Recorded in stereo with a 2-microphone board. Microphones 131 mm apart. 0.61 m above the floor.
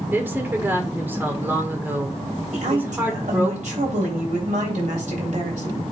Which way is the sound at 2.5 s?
70° right (ahead or behind).